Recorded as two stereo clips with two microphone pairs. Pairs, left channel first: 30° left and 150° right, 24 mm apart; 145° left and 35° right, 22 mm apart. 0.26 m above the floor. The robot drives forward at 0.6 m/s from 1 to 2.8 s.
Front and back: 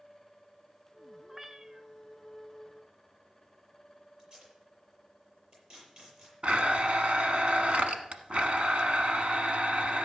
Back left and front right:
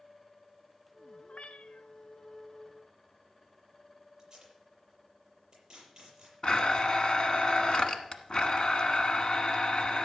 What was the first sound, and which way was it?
A cat meowing, 135° left.